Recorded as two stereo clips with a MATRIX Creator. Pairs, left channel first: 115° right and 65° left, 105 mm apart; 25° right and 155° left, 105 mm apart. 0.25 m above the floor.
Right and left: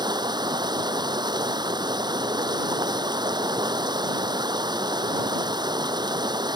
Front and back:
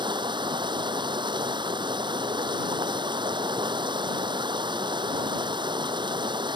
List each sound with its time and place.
0.0 s running water: 115° left